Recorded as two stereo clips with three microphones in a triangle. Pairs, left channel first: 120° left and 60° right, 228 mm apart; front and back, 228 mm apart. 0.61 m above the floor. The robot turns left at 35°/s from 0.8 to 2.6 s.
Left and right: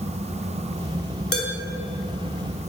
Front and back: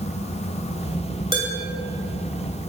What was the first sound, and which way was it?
Dishes clattering, 115° left.